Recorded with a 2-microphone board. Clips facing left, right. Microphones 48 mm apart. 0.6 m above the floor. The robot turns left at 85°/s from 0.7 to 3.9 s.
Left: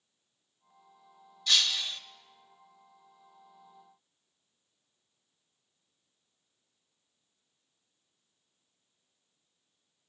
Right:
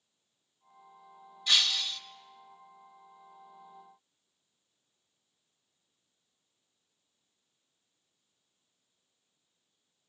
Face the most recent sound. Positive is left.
turn(degrees=-10)